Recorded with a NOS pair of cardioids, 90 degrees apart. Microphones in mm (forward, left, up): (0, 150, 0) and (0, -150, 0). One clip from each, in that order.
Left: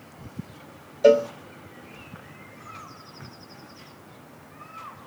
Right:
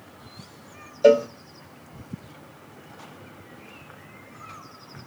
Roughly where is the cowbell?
Ahead.